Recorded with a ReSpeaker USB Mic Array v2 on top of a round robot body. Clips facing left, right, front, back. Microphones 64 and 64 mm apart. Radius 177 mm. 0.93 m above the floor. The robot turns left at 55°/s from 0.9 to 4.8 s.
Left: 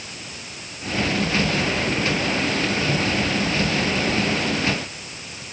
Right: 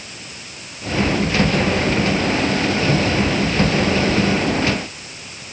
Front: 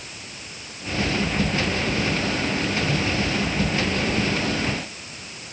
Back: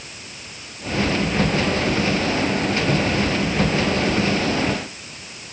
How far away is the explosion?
No explosion in this recording.